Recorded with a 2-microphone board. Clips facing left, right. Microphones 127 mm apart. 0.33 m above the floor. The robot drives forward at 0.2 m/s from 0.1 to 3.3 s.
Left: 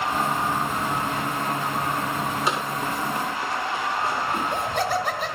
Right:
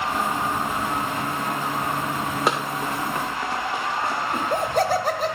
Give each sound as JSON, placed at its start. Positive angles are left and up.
{"t": 2.5, "sound": "running footsteps", "side_deg": -50, "distance_m": 1.1}
{"t": 4.3, "sound": "laughter", "side_deg": -40, "distance_m": 1.1}